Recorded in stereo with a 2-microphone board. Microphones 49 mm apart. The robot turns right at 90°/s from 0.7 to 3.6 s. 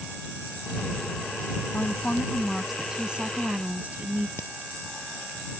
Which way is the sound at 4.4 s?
70° left (ahead or behind).